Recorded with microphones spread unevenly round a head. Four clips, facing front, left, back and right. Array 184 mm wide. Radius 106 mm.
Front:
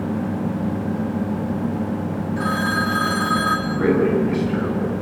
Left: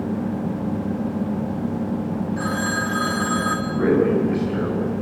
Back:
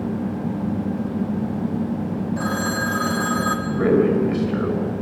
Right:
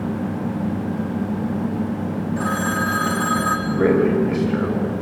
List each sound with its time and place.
2.4 s a phone ringing: 175° left, 1.0 m
3.7 s a man speaking: 120° right, 5.5 m